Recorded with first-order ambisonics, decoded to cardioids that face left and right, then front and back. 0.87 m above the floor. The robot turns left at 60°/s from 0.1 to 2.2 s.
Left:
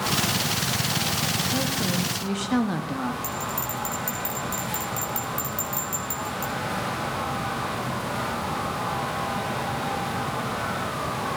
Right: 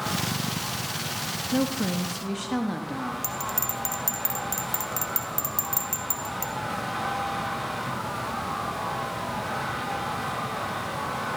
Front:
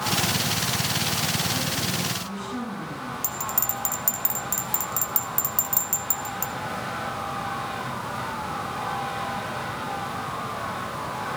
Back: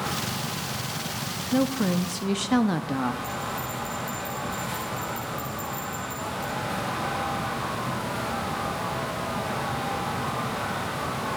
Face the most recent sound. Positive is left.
turn(degrees=-20)